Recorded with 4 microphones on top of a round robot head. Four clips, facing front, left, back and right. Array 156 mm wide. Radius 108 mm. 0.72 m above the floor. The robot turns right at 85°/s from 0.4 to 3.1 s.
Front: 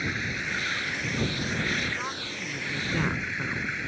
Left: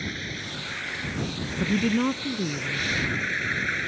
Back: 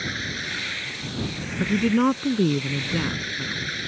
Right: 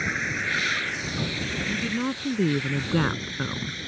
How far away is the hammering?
I don't hear hammering.